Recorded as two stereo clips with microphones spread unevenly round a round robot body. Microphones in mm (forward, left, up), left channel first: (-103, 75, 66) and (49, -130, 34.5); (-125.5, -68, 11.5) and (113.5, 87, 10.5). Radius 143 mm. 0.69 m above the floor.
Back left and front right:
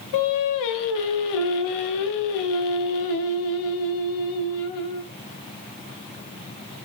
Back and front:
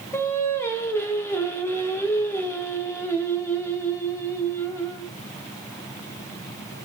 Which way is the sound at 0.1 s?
130° left.